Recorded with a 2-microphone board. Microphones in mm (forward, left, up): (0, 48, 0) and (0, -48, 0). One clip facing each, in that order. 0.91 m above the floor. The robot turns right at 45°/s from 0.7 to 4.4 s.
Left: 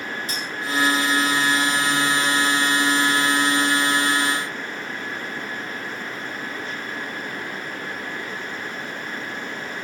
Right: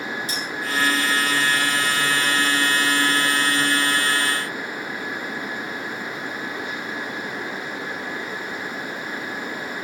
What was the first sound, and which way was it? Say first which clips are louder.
Cutlery clinking: right 1 dB; 45° left (ahead or behind).